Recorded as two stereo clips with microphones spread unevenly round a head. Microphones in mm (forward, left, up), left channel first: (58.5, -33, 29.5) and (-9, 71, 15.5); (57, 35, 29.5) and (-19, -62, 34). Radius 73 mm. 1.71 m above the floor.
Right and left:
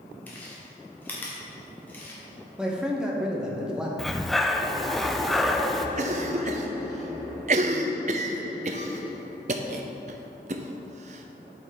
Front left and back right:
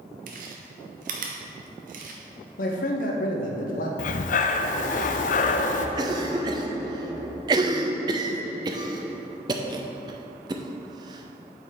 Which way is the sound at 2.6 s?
35° left.